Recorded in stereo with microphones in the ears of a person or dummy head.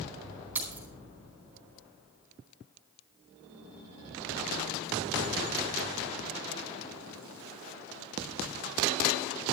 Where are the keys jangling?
10° right (ahead or behind), 4 m.